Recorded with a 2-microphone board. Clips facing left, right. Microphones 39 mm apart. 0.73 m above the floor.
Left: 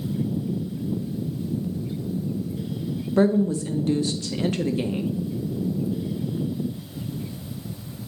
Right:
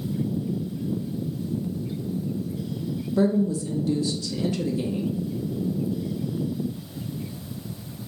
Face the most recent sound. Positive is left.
turn(degrees=50)  # may be behind; listen again after turning